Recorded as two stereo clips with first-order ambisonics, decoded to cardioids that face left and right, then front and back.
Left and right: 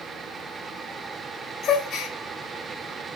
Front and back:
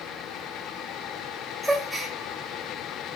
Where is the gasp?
95° left, 1.5 m.